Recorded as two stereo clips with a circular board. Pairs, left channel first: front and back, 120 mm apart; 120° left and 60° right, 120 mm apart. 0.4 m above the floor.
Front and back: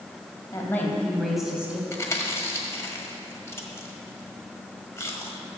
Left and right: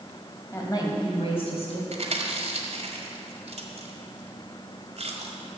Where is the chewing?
65° right, 1.6 m.